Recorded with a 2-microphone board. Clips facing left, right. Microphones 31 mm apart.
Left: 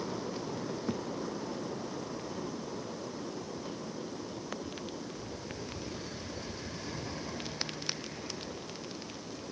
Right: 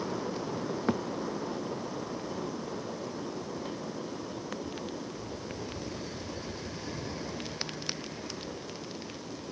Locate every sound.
0.9 s a thud: 85° right